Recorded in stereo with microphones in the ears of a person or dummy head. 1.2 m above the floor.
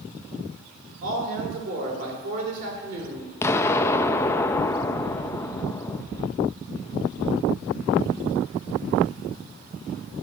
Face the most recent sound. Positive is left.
turn(degrees=15)  # may be behind; listen again after turning